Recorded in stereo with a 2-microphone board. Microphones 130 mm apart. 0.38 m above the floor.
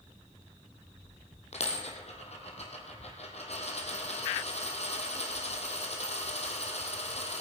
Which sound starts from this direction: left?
A dropped coin, at 1.5 s.